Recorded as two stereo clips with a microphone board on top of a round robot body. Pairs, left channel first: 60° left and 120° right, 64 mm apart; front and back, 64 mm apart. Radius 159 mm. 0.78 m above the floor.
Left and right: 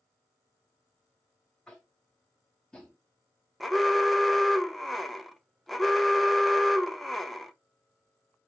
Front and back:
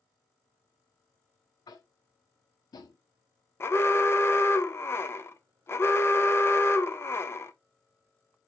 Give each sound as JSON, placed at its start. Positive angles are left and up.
{"t": 1.7, "sound": "tapping", "azimuth_deg": -20, "distance_m": 0.5}
{"t": 3.6, "sound": "an alarm", "azimuth_deg": -30, "distance_m": 0.8}